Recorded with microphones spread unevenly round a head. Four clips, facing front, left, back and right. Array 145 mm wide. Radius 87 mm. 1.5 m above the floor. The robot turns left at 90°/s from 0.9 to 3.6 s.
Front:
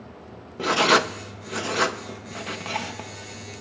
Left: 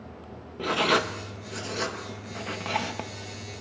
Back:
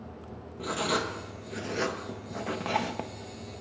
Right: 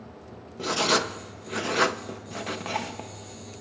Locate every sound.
0.6 s writing: straight ahead, 0.8 m; by 3.1 s 160° left, 0.8 m